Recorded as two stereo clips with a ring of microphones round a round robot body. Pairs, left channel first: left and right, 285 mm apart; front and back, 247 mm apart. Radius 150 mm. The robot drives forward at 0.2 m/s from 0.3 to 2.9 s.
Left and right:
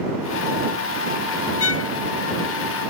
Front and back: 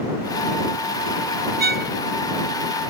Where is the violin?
130° left.